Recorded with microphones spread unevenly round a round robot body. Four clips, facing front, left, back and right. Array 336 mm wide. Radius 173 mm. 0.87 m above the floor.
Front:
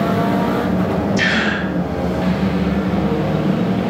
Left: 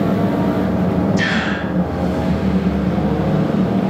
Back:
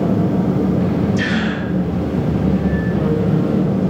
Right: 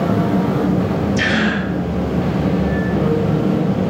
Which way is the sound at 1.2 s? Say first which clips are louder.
Right 1 dB, front 1 dB; 145° right.